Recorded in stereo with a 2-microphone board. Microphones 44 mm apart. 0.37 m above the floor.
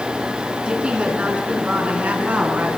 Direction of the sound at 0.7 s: 20° right (ahead or behind).